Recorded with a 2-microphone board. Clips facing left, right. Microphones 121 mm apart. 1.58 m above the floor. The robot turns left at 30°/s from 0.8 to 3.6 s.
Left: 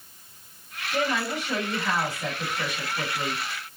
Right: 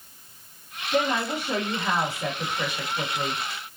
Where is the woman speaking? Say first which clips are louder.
Right 2 dB; 125° right, 3 m; by 3.4 s 160° left, 3 m.